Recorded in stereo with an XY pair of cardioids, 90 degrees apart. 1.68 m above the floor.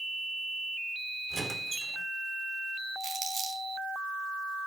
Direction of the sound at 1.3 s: 40° right.